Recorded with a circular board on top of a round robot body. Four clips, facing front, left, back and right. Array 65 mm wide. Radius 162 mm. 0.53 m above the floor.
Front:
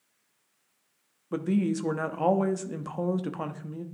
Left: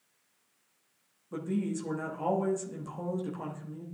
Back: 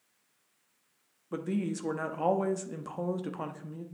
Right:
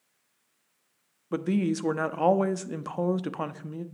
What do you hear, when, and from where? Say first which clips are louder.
1.3 s a woman speaking: right 6 dB, front 6 dB; 75° right, 1.0 m